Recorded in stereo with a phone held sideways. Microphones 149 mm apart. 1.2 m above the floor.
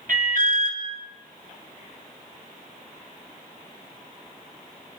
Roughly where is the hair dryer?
I don't hear a hair dryer.